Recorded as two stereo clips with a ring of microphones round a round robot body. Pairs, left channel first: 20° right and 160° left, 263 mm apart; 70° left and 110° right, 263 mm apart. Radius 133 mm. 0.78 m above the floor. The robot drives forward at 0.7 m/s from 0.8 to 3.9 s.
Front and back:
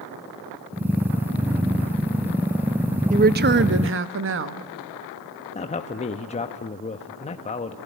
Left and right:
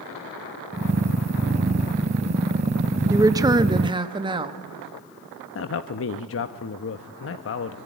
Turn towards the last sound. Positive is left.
turn(degrees=40)